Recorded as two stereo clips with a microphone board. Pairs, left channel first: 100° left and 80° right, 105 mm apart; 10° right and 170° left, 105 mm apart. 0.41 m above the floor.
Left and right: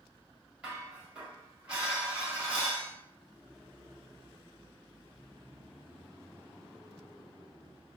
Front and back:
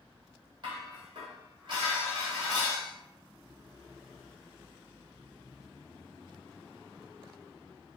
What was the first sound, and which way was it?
Dishes clattering, 155° right.